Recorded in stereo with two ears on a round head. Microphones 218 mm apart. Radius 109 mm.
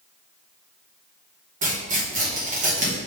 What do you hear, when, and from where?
1.6 s tearing paper: 35° right (ahead or behind), 1.8 m